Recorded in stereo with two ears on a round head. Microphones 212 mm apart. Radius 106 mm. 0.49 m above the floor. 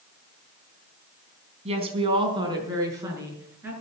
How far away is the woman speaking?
About 3.5 m.